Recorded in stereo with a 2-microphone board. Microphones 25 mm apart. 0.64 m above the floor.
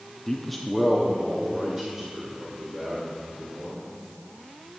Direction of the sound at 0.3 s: 20° left (ahead or behind).